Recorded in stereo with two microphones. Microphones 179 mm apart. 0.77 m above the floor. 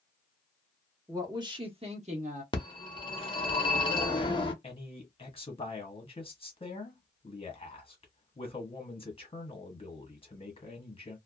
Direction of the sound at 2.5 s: 30° left (ahead or behind).